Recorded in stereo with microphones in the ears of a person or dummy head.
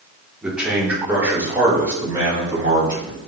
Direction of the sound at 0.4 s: Centre (ahead or behind).